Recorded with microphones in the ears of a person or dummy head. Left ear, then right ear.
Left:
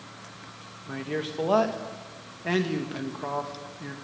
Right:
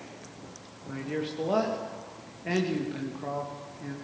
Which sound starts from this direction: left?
A man speaking, at 0.9 s.